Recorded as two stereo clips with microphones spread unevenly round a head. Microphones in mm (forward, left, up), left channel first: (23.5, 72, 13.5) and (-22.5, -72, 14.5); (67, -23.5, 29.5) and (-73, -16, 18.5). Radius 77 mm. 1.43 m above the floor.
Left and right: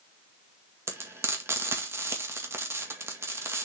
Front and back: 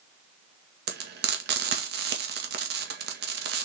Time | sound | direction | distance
0.9 | frying | 175° left | 1.9 m